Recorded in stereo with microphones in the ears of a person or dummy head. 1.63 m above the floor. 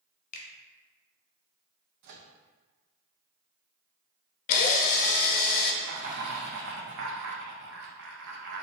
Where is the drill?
50° left (ahead or behind), 0.5 m.